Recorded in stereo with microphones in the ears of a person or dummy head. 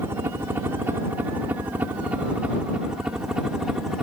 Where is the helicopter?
15° right (ahead or behind); by 4.0 s 5° right (ahead or behind).